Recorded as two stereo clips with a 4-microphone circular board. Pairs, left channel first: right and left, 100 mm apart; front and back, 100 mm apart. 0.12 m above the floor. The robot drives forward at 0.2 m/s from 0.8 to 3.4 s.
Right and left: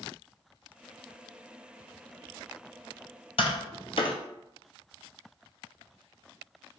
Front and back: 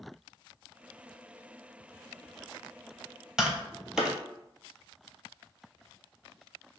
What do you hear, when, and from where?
3.4 s tapping: 95° right, 0.7 m